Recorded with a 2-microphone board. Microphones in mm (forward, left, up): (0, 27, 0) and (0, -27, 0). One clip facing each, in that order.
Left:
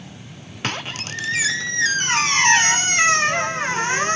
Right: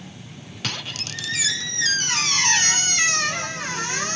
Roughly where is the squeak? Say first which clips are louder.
Left 4 dB; left.